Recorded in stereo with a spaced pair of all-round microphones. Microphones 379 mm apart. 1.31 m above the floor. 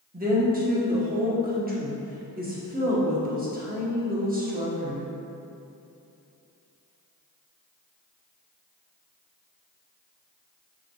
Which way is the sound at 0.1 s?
25° right (ahead or behind).